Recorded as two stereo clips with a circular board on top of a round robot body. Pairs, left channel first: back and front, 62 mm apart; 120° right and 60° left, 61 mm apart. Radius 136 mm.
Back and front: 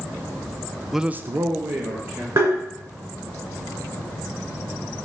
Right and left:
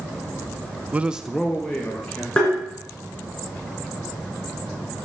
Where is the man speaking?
85° left, 0.5 m; by 2.3 s 40° right, 1.6 m.